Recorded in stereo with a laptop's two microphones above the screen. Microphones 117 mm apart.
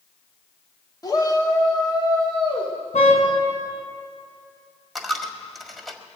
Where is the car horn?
85° left, 4 m.